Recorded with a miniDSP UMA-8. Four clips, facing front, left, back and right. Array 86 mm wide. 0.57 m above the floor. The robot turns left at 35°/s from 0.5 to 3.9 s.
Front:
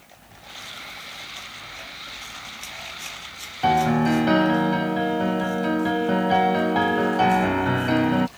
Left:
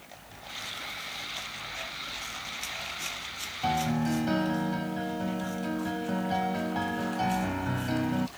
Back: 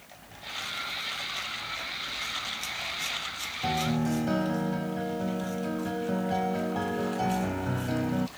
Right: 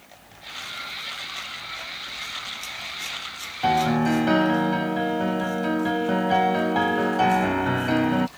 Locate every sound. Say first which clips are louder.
3.6 s a piano: right 8 dB, front 10 dB; 30° right; by 8.3 s 40° right